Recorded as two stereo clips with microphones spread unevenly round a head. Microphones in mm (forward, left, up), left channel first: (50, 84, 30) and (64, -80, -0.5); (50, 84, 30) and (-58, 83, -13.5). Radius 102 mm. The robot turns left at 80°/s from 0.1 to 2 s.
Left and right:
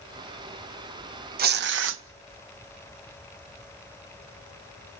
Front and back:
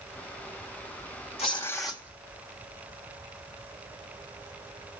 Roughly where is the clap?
No clap in this recording.